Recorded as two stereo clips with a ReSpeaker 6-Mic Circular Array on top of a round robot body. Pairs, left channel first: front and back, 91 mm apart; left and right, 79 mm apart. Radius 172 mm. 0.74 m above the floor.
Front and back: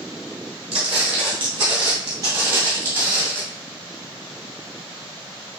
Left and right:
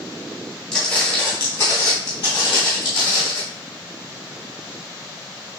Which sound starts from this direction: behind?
Footsteps, at 0.7 s.